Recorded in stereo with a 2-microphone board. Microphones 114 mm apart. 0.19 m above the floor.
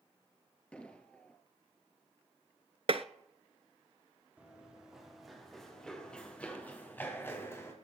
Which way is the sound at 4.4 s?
10° right (ahead or behind).